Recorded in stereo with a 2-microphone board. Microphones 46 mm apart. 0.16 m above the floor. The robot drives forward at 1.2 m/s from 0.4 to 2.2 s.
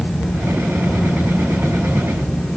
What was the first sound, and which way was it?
Only background noise.